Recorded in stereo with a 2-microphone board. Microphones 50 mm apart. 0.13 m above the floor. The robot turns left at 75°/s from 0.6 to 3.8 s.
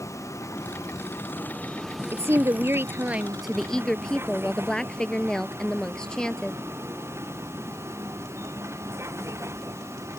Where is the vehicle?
80° left; by 10.2 s 65° right (ahead or behind).